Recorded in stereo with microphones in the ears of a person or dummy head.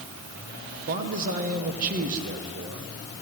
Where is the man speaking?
45° right (ahead or behind), 1.7 m.